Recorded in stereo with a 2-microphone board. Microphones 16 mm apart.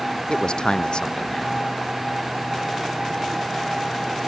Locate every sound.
0.3 s a man speaking: 60° left (ahead or behind)